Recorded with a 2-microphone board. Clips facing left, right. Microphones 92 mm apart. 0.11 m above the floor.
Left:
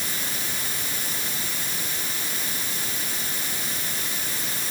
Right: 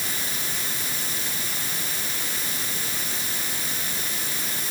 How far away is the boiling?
I don't hear boiling.